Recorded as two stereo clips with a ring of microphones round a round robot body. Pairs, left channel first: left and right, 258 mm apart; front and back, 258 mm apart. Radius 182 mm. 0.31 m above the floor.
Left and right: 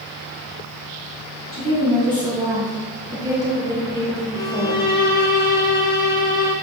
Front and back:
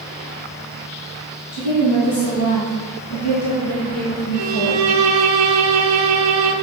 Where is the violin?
150° left, 0.6 m.